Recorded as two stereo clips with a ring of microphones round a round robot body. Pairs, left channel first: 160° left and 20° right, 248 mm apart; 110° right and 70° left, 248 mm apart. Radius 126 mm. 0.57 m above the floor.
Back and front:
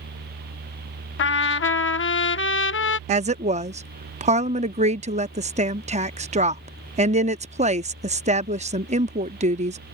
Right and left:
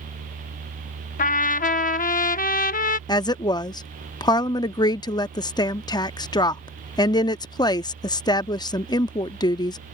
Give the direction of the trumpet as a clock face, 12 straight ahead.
6 o'clock.